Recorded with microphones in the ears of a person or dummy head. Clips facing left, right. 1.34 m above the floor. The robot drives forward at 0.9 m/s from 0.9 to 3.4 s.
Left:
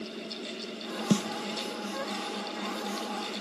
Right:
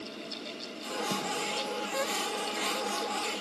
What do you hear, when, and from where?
1.1 s a snare drum: 45° left (ahead or behind), 1.0 m; by 1.3 s 40° left (ahead or behind), 1.1 m